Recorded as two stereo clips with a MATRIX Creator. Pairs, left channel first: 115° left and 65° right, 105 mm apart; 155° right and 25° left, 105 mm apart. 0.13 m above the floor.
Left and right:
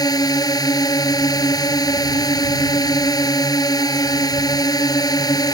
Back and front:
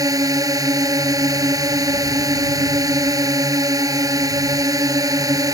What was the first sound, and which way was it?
A drone, 70° left.